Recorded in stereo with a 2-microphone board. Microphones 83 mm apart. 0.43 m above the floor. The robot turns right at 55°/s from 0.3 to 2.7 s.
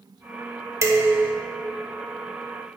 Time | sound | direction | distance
0.8 | dishes clattering | 35° right (ahead or behind) | 0.8 m